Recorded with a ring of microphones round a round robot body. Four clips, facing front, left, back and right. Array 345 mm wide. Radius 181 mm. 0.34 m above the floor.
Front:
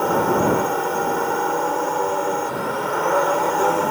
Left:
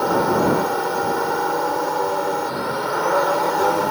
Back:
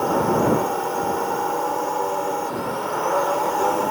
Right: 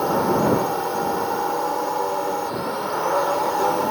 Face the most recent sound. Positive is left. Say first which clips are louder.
# left 1 dB, front 1 dB
turn(degrees=45)